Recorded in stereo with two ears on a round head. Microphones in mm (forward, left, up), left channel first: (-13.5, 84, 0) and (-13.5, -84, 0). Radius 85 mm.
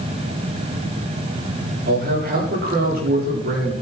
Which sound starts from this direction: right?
A man speaking, at 1.9 s.